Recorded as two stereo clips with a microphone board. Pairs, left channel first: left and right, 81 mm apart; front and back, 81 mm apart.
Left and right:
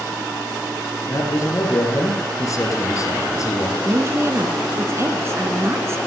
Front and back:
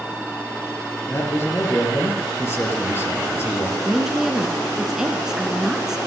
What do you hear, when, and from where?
1.1 s a man speaking: 50° left, 3 m
3.9 s a woman speaking: 105° right, 1.2 m